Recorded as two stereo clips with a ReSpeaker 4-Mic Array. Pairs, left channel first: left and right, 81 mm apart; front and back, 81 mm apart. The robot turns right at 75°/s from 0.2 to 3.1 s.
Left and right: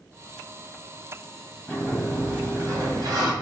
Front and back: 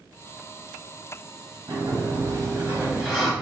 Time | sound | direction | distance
1.7 | a sliding door | 160° left | 1.1 m